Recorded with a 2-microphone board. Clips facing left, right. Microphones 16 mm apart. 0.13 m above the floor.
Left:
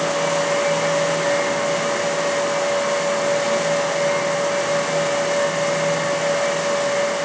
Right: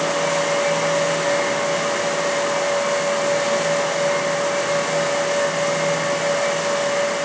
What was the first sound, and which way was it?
Only background noise.